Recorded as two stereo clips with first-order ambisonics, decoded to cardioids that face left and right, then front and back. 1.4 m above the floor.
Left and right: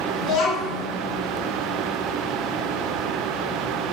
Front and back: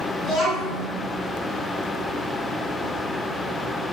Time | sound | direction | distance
0.2 | a child speaking | 80° left | 1.7 m